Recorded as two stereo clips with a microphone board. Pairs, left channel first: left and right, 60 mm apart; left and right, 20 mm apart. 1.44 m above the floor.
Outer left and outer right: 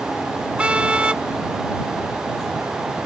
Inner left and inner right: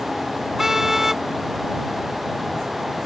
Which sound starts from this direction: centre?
A car horn, at 0.6 s.